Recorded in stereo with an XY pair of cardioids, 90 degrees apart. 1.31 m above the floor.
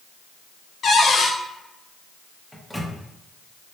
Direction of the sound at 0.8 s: 60° left.